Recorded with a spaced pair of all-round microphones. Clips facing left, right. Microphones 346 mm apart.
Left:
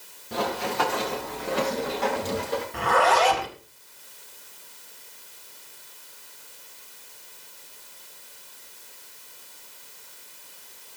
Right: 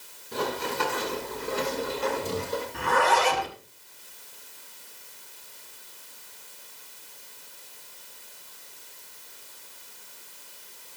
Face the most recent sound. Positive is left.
turn(degrees=80)